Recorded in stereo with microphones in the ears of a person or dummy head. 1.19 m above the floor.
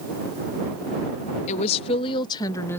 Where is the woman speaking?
40° left (ahead or behind); by 2.8 s 10° left (ahead or behind).